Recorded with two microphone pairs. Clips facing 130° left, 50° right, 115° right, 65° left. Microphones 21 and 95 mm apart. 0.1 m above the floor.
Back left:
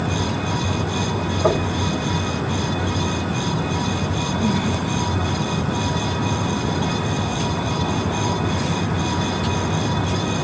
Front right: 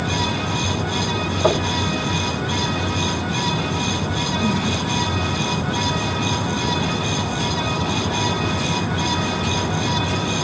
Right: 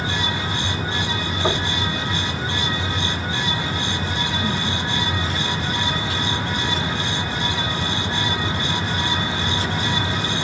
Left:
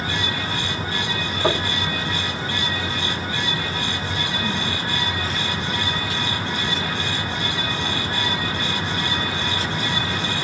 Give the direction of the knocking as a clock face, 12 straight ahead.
12 o'clock.